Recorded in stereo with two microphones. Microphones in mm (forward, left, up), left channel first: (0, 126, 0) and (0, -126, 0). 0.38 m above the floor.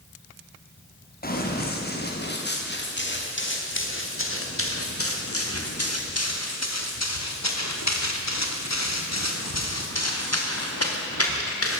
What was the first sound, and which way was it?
Running footsteps, 35° left (ahead or behind).